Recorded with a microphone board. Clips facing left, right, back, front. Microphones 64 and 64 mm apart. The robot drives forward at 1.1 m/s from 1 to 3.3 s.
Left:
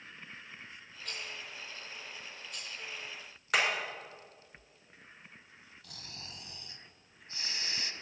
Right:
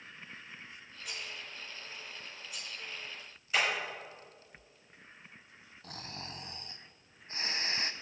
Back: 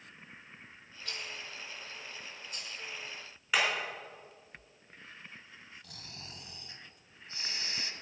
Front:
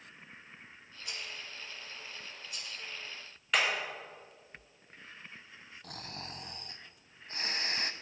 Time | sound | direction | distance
1.1 | a rattle | 25° right | 1.2 m
3.5 | hammering | 95° left | 4 m
5.8 | snoring | 45° right | 0.5 m